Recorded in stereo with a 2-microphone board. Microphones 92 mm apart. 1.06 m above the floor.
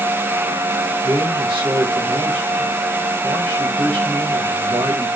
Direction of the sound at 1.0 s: 75° right (ahead or behind).